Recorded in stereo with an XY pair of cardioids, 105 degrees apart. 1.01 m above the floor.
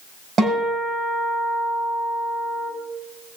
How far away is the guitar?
About 6.5 m.